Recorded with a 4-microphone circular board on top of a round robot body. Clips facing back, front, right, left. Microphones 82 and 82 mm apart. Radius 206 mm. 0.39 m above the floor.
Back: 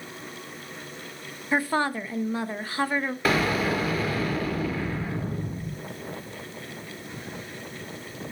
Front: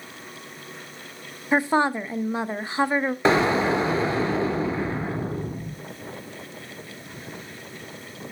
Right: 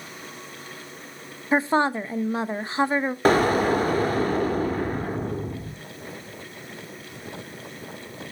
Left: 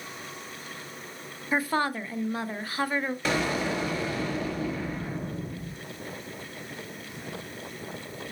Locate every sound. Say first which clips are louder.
1.5 s a woman speaking: front 4 dB, right 6 dB; 50° right, 0.9 m
3.2 s an explosion: front 4 dB, right 11 dB; 60° right, 1.4 m